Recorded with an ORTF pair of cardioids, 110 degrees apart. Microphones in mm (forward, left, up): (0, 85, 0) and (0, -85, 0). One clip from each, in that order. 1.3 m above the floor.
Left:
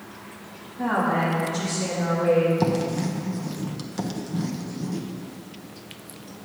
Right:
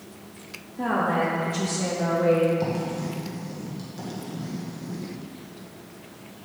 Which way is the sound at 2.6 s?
45° left.